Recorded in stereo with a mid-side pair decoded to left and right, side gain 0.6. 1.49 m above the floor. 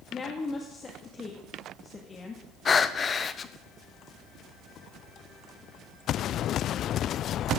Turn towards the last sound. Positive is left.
turn(degrees=35)